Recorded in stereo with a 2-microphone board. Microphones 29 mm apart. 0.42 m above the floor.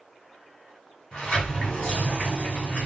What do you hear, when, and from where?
1.1 s a sliding door: 35° left (ahead or behind), 2 m